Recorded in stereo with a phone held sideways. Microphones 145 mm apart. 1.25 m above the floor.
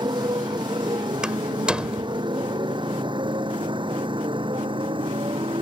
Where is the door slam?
5° right (ahead or behind).